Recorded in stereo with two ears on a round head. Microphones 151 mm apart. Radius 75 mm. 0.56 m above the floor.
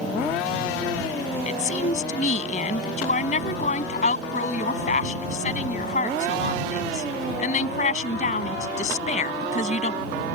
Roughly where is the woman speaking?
Left.